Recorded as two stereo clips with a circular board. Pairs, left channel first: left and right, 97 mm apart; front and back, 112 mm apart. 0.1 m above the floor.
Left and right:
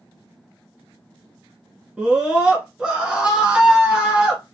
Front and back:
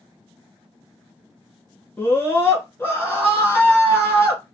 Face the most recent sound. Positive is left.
turn(degrees=-30)